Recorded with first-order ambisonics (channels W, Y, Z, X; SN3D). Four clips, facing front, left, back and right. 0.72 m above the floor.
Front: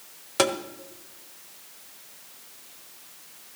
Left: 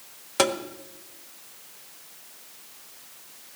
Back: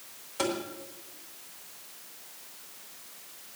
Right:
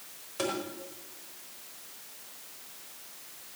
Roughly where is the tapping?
Ahead left.